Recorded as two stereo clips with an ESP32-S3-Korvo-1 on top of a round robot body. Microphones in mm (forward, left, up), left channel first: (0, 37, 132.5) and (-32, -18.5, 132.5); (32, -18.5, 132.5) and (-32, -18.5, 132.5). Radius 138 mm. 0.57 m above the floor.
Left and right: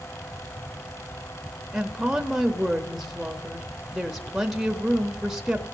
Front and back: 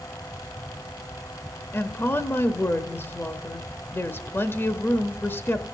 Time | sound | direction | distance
1.7 | a woman speaking | 35° right | 1.1 m